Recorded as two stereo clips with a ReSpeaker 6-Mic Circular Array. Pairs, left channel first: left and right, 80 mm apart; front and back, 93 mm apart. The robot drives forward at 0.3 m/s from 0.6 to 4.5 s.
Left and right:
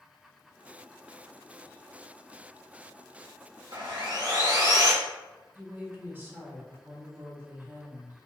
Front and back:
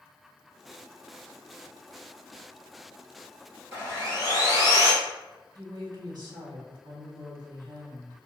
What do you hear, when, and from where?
3.7 s sawing: 120° right, 1.8 m; by 4.9 s 130° right, 2.0 m
5.5 s a woman speaking: 150° right, 1.3 m